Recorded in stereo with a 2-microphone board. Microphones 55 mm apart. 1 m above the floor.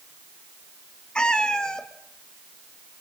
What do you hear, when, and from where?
1.1 s a cat meowing: 20° left (ahead or behind), 0.9 m; by 3.0 s 15° left (ahead or behind), 3.5 m